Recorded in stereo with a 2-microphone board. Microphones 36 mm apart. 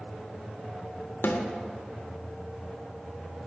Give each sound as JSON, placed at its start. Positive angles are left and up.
{"t": 1.2, "sound": "a snare drum", "side_deg": 80, "distance_m": 1.0}